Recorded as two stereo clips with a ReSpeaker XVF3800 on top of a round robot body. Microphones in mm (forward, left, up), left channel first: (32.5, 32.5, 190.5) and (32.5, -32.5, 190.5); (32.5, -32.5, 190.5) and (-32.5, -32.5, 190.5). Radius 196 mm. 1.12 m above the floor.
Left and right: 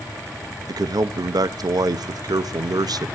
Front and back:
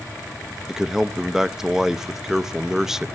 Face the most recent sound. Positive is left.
turn(degrees=-100)